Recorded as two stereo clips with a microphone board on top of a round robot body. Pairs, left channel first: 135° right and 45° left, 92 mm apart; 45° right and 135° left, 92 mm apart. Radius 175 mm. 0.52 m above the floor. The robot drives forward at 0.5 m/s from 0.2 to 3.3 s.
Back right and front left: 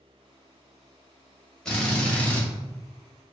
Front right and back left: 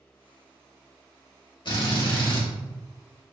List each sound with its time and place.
1.6 s a drill: 55° right, 2 m; by 2.5 s 65° right, 1.9 m